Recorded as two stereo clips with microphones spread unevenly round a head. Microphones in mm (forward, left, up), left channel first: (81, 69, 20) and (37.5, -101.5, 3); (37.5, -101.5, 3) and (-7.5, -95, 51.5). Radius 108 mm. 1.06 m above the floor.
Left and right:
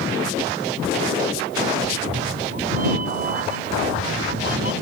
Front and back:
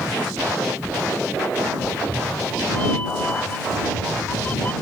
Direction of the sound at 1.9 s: 65° right.